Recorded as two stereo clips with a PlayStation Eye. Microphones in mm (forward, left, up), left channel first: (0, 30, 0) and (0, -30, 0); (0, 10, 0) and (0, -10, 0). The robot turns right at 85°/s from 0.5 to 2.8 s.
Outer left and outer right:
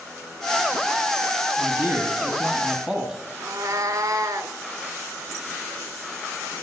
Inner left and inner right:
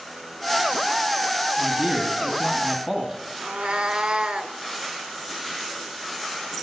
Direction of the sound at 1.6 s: 115° right.